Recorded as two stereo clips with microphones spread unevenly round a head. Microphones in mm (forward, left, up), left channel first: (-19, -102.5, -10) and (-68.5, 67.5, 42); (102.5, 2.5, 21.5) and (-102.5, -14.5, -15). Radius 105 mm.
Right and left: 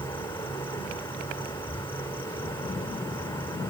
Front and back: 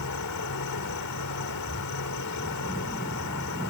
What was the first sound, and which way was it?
An insect, 5° left.